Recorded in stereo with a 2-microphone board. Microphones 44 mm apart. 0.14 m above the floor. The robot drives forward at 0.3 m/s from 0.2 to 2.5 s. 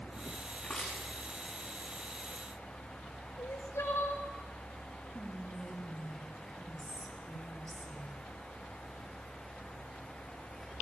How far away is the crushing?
About 4.5 m.